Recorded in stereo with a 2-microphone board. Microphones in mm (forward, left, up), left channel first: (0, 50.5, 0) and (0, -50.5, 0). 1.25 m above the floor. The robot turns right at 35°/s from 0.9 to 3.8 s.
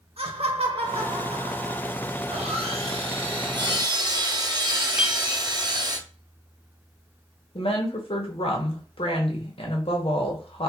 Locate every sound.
0.2 s laughter: 80° right, 1.0 m; by 2.2 s 35° right, 1.0 m
2.2 s sawing: 95° right, 1.3 m; by 6.0 s 40° right, 1.3 m
5.0 s a clink: 10° right (ahead or behind), 0.7 m
7.5 s a woman speaking: 70° left (ahead or behind), 1.4 m